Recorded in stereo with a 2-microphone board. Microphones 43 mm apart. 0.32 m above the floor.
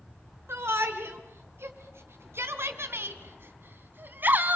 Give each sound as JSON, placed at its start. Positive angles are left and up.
{"t": 0.5, "sound": "a shout", "side_deg": -70, "distance_m": 3.5}